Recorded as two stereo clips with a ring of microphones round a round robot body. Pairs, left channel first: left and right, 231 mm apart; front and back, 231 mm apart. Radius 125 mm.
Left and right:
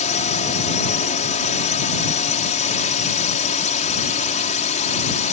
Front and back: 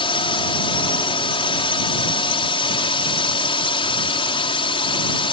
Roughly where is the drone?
Ahead left.